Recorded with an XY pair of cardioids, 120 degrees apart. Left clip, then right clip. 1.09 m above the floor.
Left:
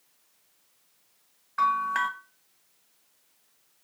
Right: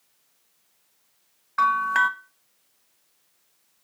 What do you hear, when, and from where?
1.6 s a bell: 30° right, 0.7 m